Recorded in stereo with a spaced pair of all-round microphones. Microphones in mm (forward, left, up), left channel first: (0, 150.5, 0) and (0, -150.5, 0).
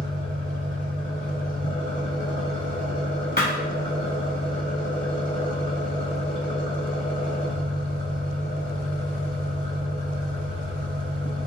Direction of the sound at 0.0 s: 25° left (ahead or behind).